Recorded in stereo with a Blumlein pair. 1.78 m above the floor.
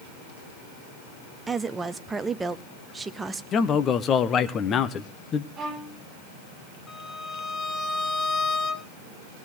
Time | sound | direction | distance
1.5 | a woman speaking | 15° right | 0.8 m
3.5 | a man speaking | 25° left | 1.1 m
5.6 | a violin | 25° right | 10 m
6.9 | a violin | 20° left | 1.6 m